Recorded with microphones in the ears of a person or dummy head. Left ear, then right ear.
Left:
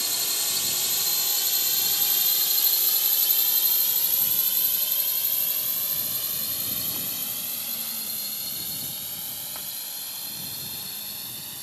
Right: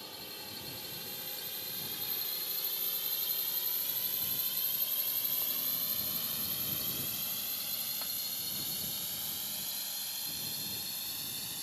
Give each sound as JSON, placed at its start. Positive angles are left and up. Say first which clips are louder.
{"t": 0.0, "sound": "a drone", "louder": "left 17 dB", "side_deg": 65}